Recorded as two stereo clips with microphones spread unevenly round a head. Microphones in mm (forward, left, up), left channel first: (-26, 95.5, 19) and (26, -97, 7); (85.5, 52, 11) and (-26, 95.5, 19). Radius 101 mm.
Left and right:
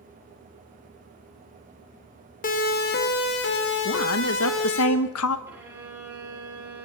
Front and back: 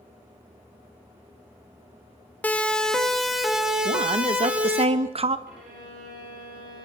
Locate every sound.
2.4 s a siren: 55° left, 2.5 m; by 4.8 s 80° left, 4.5 m
3.9 s a woman speaking: 120° left, 1.5 m
5.5 s a violin: 155° right, 8.5 m